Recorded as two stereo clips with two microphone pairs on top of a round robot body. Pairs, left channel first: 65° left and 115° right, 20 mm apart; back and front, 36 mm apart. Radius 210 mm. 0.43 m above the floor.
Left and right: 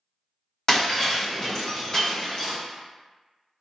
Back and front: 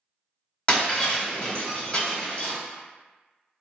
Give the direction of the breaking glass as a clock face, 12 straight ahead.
8 o'clock.